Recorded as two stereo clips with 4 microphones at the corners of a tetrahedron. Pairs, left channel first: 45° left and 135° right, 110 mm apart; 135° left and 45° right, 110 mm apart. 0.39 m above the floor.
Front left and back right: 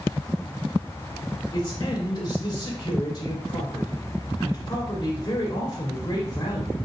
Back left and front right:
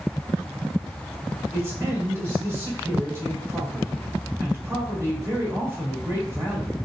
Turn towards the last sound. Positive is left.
turn(degrees=10)